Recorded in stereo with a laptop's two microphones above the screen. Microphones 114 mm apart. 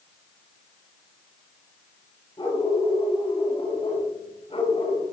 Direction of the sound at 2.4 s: 45° left (ahead or behind).